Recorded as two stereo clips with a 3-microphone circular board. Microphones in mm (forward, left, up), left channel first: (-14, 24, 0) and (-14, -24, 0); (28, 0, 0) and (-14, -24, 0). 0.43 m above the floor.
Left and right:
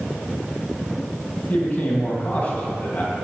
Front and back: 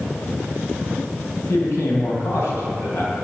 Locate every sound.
1.5 s a man speaking: 45° left, 3.5 m